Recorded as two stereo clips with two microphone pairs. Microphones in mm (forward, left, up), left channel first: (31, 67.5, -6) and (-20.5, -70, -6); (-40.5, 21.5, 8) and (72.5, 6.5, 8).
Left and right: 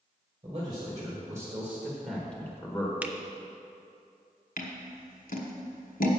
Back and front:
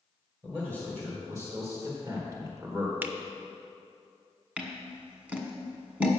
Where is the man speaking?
70° right, 2 m; by 2.9 s 30° left, 1.5 m.